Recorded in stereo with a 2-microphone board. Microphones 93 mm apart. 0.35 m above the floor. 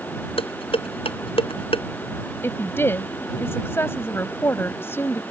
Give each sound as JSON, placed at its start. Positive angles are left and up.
{"t": 0.4, "sound": "dishes clattering", "side_deg": 75}
{"t": 2.4, "sound": "a woman speaking", "side_deg": 25}